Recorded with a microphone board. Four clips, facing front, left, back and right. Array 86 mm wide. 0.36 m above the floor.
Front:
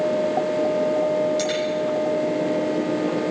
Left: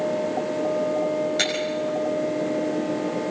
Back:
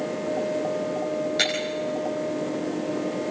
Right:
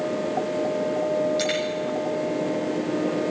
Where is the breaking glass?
140° left, 9.5 m.